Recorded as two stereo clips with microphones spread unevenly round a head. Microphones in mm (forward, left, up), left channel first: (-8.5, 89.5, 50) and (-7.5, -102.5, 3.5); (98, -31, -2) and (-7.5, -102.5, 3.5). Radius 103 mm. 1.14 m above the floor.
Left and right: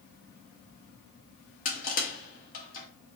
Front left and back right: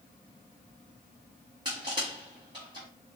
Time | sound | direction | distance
1.6 | crushing | 145° left | 1.1 m